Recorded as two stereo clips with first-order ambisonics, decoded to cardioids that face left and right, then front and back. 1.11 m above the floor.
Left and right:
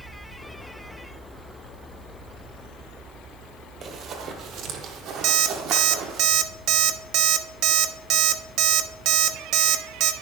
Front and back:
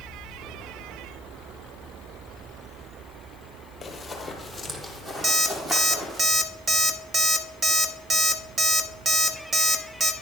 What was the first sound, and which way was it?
Running footsteps, 70° right.